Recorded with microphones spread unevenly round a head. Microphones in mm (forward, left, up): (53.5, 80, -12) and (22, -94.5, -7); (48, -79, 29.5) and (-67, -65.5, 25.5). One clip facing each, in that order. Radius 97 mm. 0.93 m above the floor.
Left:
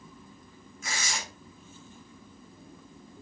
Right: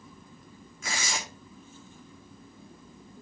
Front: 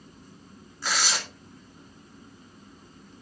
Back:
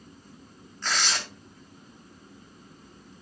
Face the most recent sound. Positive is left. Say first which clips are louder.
# right 2 dB, even
turn(degrees=-90)